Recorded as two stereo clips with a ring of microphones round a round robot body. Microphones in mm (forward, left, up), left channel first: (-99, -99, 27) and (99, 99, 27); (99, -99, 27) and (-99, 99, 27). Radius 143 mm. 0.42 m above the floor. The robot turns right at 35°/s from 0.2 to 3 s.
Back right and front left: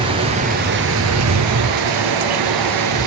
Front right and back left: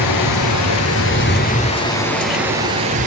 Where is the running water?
30° right, 2.5 m; by 3.1 s 70° left, 2.5 m.